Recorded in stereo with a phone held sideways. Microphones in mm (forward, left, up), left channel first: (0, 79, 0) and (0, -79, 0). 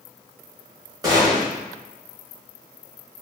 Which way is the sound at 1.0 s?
25° right (ahead or behind).